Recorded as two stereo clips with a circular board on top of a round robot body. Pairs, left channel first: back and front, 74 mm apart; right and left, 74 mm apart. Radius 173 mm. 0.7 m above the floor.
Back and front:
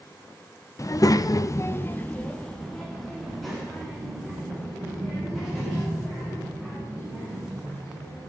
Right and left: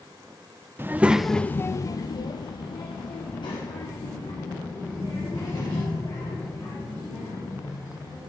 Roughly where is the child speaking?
Behind left.